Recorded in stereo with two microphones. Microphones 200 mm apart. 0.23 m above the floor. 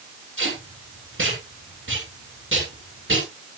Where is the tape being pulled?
80° right, 8.5 m.